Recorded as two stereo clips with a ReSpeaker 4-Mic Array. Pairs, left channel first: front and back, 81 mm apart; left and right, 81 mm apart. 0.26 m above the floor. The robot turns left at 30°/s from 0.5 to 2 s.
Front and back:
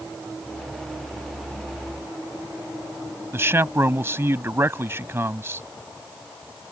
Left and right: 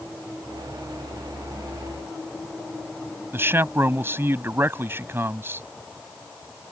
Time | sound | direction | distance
3.3 | a man speaking | 135° right | ?